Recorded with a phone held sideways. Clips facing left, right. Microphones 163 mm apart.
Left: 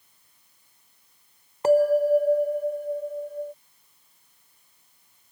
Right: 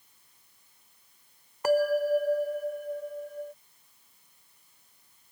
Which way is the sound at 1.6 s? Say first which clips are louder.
Left 6 dB; 25° left (ahead or behind).